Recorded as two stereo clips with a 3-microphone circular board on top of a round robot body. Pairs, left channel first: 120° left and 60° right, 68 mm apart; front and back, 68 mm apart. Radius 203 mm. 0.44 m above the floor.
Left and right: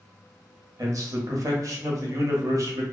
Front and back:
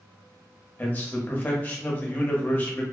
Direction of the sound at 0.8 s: 55° right.